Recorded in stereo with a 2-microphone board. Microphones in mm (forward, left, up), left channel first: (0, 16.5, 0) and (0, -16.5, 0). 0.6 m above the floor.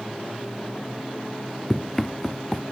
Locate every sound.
1.7 s running footsteps: 15° left (ahead or behind)